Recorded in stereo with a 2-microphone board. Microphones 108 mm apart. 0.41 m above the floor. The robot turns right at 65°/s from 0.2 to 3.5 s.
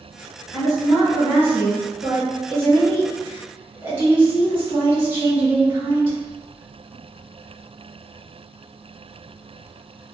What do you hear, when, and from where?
0.5 s a woman speaking: 145° left, 2.0 m; by 6.2 s 25° right, 2.0 m